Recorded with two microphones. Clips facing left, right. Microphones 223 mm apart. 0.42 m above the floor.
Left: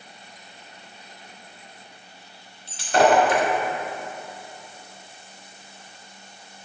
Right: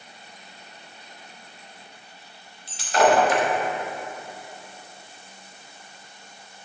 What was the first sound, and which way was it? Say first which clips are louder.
Breaking glass: left 1 dB; 65° left (ahead or behind).